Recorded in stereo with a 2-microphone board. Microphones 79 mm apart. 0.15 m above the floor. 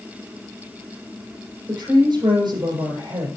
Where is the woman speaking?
60° right (ahead or behind), 6.5 m.